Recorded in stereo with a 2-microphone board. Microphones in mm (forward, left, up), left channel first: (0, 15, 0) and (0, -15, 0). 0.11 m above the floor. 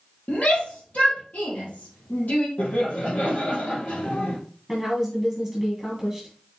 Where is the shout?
50° left (ahead or behind), 2.5 m.